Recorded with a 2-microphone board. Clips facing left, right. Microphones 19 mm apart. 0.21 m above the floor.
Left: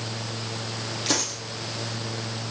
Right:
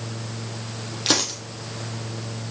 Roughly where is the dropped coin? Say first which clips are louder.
Right 5 dB; right.